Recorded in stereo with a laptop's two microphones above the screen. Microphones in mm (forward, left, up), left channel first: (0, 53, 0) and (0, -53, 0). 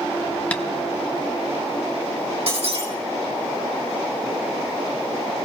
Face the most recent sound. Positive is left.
turn(degrees=-65)  # may be behind; listen again after turning